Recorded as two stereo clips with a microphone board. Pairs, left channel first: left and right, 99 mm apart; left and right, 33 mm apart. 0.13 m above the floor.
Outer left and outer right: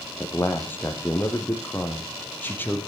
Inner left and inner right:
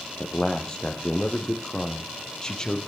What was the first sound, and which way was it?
A man speaking, 20° left (ahead or behind).